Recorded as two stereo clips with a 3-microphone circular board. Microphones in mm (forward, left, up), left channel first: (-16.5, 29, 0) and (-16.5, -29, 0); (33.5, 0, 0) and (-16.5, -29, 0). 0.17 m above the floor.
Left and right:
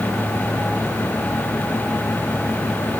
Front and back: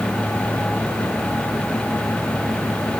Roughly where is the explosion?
No explosion in this recording.